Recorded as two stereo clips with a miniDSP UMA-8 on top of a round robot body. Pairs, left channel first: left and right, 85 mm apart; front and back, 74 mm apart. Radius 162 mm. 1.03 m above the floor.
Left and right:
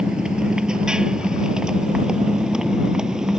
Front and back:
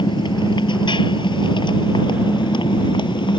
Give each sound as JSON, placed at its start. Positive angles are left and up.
{"t": 0.0, "sound": "a motorcycle", "azimuth_deg": -10}